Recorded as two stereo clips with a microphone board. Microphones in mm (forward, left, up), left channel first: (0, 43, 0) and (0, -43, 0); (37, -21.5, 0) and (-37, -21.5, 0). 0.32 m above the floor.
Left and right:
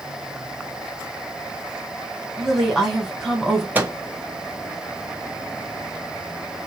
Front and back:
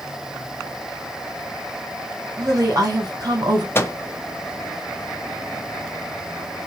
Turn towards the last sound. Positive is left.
turn(degrees=-35)